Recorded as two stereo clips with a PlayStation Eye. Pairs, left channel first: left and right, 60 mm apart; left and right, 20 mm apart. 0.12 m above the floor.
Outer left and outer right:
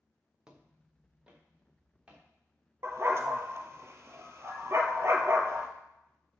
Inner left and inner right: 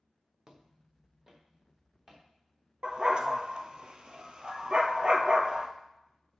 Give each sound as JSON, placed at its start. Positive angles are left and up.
{"t": 0.5, "sound": "footsteps", "side_deg": -15, "distance_m": 1.6}
{"t": 2.8, "sound": "a dog barking", "side_deg": -50, "distance_m": 0.9}